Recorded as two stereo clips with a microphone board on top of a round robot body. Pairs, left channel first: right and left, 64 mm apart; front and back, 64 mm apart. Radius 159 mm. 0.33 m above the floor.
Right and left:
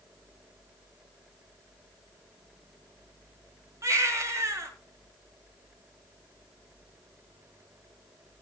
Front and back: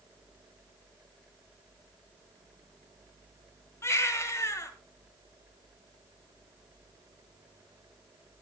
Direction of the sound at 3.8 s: 45° left.